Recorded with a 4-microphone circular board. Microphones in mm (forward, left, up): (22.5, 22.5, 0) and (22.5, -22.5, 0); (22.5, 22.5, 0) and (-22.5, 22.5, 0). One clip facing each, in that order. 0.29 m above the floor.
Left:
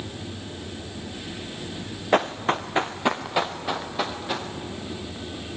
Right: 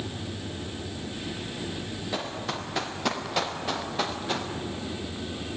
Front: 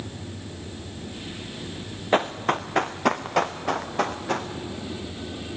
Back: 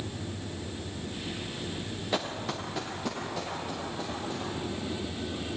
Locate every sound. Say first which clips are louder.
2.1 s running footsteps: left 12 dB, front 11 dB; 50° left, 1.7 m; by 4.5 s 5° left, 3.5 m